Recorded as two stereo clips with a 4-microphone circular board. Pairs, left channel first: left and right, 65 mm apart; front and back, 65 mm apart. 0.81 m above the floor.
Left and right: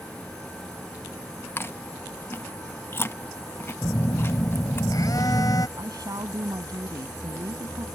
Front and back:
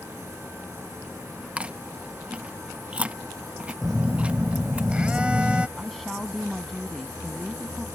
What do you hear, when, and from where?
1.6 s chewing: 120° left
3.8 s a phone buzzing: 105° left
5.8 s a woman speaking: 85° right